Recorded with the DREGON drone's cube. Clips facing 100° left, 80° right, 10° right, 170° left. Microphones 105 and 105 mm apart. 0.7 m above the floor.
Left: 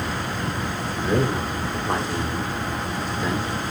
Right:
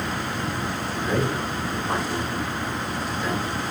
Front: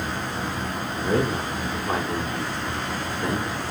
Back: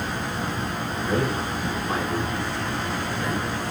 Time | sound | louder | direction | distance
1.0 | a man speaking | left 3 dB, front 2 dB | 35° left | 1.8 m